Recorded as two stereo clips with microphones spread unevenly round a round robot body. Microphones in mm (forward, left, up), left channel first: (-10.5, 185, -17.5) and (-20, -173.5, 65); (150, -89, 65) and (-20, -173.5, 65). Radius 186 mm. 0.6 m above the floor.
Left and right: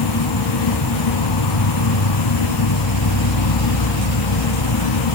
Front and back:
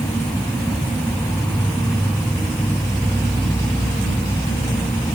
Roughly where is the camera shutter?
I don't hear a camera shutter.